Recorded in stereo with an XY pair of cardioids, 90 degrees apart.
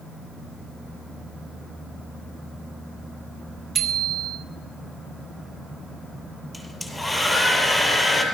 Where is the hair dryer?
5° left, 7 m.